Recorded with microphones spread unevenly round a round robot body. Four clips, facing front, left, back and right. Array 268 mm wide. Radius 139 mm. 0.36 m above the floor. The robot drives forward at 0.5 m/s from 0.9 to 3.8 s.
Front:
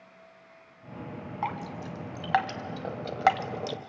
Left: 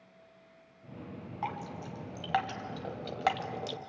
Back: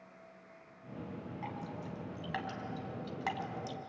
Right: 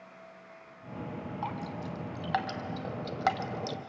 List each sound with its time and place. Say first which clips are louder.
1.4 s dripping: left 1 dB, front 11 dB; straight ahead, 2 m; by 3.8 s 5° right, 0.9 m